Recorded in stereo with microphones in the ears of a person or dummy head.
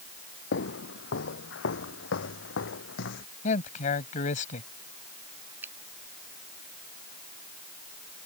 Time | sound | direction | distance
0.5 | footsteps | 70° left (ahead or behind) | ?
3.4 | a man speaking | 40° left (ahead or behind) | ?
5.6 | a finger snap | 15° right (ahead or behind) | ?